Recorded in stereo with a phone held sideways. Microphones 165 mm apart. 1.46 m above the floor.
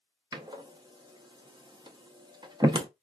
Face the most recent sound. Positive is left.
turn(degrees=-25)  # may be behind; listen again after turning